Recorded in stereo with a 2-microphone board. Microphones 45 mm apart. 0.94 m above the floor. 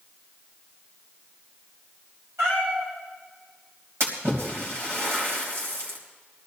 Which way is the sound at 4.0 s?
70° right (ahead or behind).